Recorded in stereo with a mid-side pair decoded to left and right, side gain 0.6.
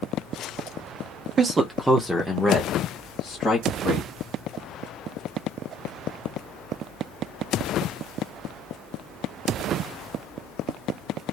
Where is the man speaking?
35° right, 0.5 m; by 4.1 s 20° left, 1.6 m.